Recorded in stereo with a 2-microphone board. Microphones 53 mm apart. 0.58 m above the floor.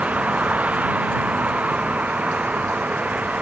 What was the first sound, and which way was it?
A vehicle, 20° right (ahead or behind).